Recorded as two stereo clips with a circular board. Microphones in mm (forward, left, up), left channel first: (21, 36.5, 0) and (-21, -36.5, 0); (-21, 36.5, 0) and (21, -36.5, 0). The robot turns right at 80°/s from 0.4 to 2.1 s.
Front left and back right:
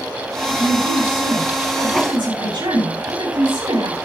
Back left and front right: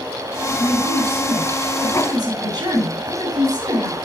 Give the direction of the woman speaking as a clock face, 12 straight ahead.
8 o'clock.